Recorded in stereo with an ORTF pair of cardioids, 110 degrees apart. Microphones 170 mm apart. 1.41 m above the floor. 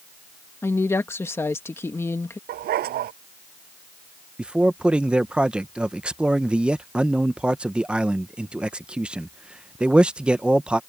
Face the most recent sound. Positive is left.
turn(degrees=-5)